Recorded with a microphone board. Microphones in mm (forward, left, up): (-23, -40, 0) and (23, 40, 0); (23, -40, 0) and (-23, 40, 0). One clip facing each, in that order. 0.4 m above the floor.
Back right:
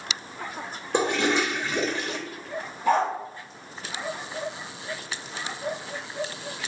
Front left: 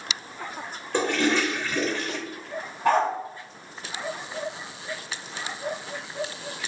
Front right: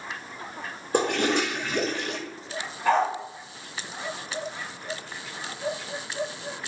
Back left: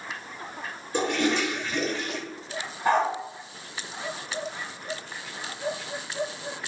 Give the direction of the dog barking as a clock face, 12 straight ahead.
10 o'clock.